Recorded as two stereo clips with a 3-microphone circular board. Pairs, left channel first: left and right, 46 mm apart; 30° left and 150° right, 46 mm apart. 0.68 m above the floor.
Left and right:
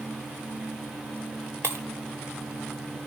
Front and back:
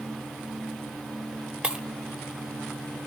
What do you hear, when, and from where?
1.6 s breaking glass: 85° right, 1.6 m